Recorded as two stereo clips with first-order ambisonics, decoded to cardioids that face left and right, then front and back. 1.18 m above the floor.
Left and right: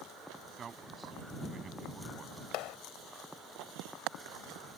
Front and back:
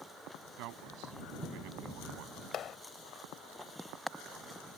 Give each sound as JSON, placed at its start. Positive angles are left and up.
{"t": 0.6, "sound": "a man speaking", "azimuth_deg": -155}
{"t": 2.5, "sound": "a clap", "azimuth_deg": 55}